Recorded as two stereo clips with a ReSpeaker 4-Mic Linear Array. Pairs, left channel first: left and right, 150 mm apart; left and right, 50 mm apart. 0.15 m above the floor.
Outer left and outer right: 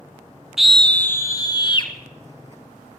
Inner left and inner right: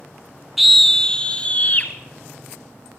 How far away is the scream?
About 1.3 m.